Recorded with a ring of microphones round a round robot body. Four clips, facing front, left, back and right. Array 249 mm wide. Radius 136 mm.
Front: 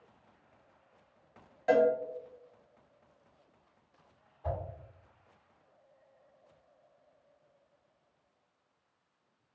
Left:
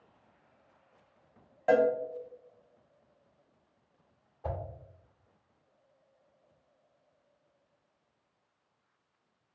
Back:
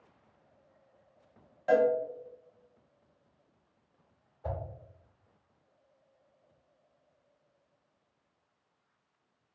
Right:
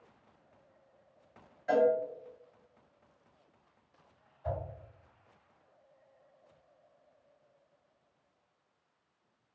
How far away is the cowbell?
About 0.7 m.